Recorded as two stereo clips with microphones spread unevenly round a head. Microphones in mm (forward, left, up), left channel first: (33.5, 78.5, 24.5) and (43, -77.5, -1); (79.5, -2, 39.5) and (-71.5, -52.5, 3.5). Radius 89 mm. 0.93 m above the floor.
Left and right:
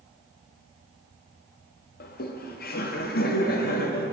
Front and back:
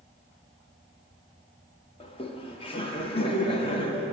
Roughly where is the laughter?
Left.